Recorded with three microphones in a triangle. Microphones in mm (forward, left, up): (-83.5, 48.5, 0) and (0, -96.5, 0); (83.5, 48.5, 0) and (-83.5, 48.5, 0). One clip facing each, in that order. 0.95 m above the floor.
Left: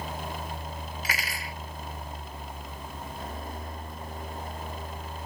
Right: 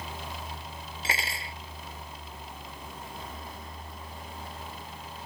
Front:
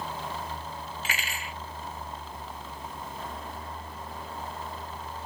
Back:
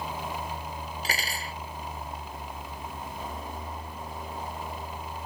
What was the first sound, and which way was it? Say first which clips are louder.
Cutlery clinking: right 3 dB, back 2 dB; 125° right.